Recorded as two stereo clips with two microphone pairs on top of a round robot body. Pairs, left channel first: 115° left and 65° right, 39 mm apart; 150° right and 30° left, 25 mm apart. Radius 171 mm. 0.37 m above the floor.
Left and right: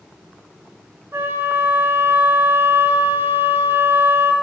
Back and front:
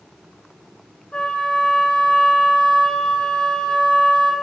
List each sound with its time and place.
1.1 s a flute: 95° right, 2 m